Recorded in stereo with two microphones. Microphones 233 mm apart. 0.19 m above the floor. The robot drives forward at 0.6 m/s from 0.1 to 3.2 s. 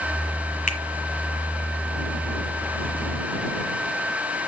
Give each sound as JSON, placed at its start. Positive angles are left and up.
{"t": 0.7, "sound": "a finger snap", "side_deg": 35, "distance_m": 1.4}